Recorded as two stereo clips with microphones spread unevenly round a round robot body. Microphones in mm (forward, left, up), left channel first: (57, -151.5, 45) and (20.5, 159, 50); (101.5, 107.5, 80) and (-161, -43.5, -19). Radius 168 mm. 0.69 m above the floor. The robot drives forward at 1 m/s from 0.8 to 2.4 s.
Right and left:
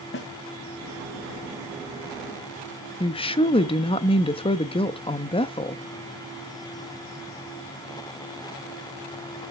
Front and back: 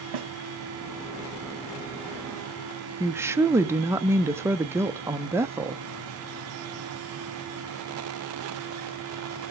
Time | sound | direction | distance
0.1 | a snare drum | 140° right | 2.0 m
3.0 | a woman speaking | 135° right | 1.0 m